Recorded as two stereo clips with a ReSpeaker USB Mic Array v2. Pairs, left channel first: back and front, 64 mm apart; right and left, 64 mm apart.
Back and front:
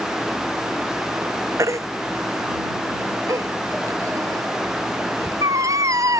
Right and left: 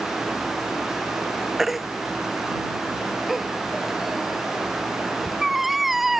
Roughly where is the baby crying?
Ahead.